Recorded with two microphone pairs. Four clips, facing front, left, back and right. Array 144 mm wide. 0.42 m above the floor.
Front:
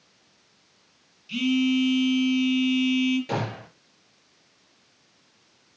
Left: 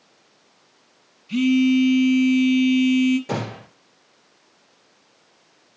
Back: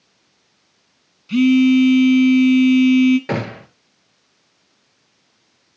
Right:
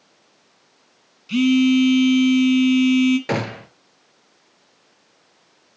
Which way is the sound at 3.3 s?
125° right.